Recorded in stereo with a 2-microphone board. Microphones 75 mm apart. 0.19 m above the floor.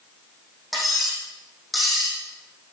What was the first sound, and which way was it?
Cutlery clinking, centre (ahead or behind).